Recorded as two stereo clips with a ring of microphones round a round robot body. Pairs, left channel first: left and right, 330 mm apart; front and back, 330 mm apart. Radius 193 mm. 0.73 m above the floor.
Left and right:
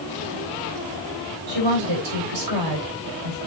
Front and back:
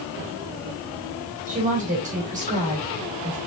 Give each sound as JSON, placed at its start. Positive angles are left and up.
{"t": 1.5, "sound": "a woman speaking", "azimuth_deg": -110, "distance_m": 3.5}